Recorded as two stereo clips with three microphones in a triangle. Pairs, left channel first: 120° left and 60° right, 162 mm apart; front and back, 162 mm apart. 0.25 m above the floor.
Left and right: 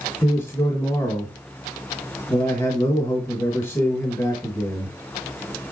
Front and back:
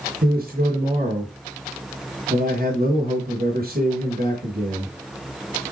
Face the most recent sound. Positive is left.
turn(degrees=180)